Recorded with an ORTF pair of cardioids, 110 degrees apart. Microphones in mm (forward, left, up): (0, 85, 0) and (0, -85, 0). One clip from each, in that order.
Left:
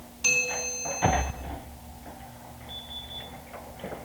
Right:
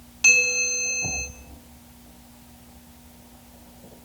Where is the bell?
65° right, 3 m.